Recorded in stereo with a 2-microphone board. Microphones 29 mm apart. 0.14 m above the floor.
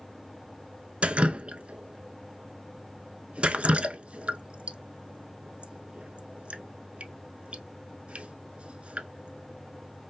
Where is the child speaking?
I don't hear a child speaking.